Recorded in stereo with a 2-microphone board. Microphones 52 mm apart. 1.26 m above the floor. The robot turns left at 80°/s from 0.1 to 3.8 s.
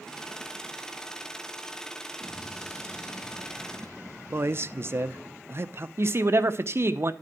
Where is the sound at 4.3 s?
45° right (ahead or behind), 0.7 m.